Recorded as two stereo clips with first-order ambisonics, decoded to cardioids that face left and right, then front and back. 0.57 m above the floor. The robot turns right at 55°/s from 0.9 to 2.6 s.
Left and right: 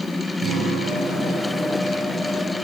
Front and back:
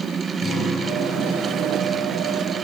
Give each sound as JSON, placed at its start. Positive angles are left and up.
{"t": 0.4, "sound": "a guitar", "azimuth_deg": -65, "distance_m": 6.5}